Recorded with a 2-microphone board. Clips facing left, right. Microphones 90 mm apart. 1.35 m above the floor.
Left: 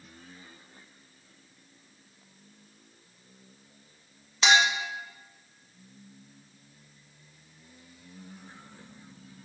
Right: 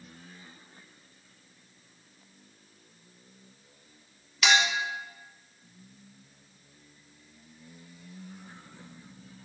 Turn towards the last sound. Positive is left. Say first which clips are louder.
# left 2 dB
turn(degrees=30)  # may be behind; listen again after turning